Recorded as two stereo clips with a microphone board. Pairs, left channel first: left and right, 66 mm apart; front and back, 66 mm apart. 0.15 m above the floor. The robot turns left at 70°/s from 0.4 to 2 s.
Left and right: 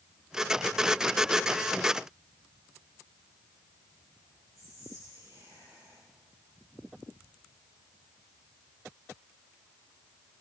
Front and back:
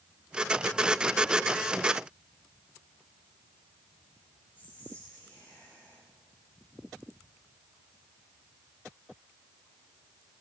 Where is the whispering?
60° right, 9.5 m.